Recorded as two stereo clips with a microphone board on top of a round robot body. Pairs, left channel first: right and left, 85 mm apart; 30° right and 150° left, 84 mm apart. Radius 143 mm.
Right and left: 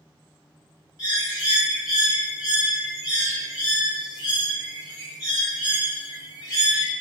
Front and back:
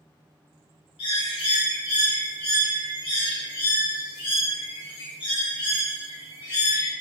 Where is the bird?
50° right, 0.6 m.